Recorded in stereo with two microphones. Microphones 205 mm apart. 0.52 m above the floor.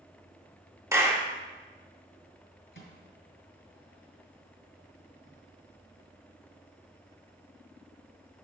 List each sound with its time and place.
0.9 s a clap: 15° right (ahead or behind), 0.8 m
2.7 s a microwave: 70° left (ahead or behind), 2.5 m